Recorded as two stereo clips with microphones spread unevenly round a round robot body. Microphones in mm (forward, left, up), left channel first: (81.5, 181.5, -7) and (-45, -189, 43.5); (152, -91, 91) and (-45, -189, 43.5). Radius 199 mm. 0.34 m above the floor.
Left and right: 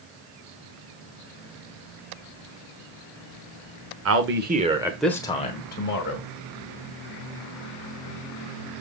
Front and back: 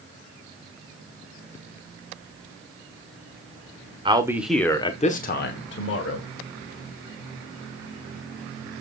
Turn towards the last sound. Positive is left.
turn(degrees=25)